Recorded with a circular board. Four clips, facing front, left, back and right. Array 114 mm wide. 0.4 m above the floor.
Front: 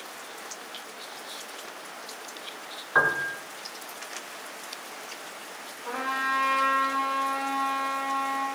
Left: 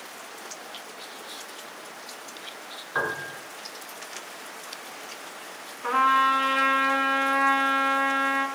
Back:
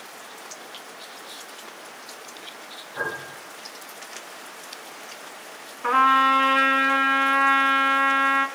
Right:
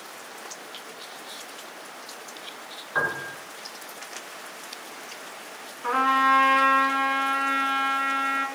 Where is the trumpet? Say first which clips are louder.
Even, back 12 dB; 175° right, 3.5 m.